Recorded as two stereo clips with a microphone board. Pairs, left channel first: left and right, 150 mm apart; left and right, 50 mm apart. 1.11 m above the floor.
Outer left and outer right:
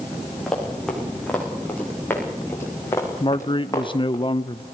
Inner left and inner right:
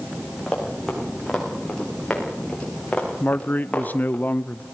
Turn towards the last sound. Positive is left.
turn(degrees=35)  # may be behind; listen again after turning